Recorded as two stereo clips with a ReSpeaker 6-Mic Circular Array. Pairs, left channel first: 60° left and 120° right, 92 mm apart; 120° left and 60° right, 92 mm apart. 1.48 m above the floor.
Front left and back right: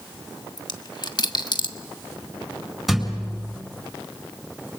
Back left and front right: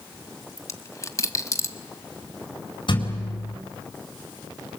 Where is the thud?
155° left, 7.5 m.